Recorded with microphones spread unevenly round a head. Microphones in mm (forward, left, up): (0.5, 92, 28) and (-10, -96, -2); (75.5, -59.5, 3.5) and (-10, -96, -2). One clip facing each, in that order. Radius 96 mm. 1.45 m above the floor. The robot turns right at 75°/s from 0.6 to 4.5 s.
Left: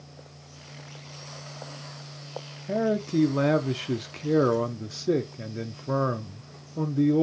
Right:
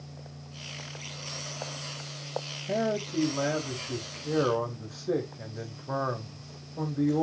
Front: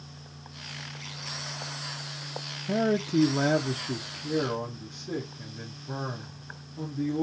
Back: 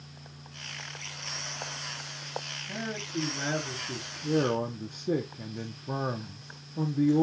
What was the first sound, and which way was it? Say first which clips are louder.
A man speaking: left 4 dB, front 11 dB; 5° left.